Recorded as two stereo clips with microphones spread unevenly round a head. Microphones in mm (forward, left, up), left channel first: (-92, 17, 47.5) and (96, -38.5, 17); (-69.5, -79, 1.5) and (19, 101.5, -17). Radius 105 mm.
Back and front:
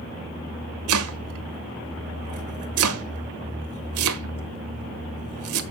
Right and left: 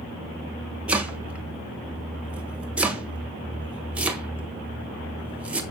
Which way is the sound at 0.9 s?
25° right.